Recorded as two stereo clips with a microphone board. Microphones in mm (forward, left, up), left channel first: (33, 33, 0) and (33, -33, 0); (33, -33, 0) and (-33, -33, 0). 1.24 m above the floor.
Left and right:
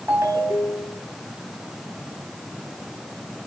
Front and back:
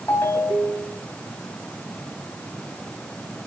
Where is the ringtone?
45° right, 3 m.